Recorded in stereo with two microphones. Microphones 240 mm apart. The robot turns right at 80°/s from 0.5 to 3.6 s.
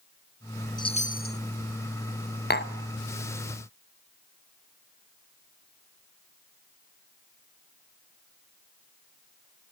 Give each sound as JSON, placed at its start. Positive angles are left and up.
{"t": 0.8, "sound": "a chime", "azimuth_deg": 25, "distance_m": 0.7}
{"t": 2.5, "sound": "tapping", "side_deg": 40, "distance_m": 1.2}